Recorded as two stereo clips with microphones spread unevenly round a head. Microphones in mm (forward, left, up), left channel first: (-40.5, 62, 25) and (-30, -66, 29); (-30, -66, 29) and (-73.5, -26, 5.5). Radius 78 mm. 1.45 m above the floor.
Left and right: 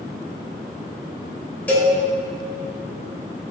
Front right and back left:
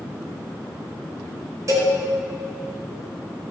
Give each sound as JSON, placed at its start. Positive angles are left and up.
{"t": 1.7, "sound": "a cowbell", "azimuth_deg": 175, "distance_m": 5.0}